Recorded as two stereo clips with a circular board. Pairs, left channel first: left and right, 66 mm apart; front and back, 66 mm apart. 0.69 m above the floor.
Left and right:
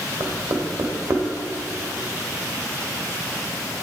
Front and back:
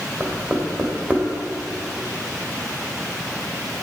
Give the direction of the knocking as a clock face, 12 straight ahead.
4 o'clock.